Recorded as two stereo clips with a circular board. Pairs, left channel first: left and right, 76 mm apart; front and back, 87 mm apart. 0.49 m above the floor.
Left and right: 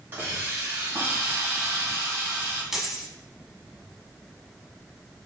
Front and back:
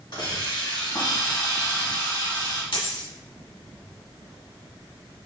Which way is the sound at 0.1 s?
30° right.